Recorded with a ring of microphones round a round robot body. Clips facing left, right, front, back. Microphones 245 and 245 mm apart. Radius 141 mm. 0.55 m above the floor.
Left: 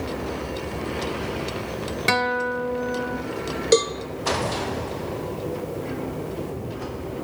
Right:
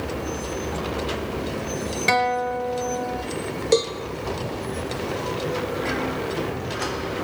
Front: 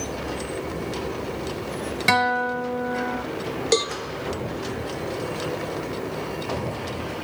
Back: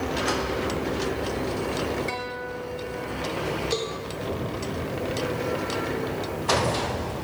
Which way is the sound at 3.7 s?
20° left.